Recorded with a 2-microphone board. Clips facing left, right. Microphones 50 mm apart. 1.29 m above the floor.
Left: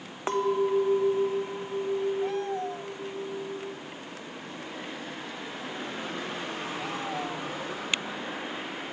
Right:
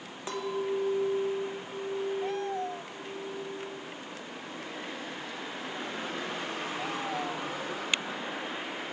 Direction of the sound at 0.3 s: 40° left (ahead or behind).